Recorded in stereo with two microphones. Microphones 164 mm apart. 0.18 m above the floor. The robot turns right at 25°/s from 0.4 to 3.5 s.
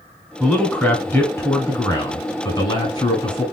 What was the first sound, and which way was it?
A man speaking, 5° left (ahead or behind).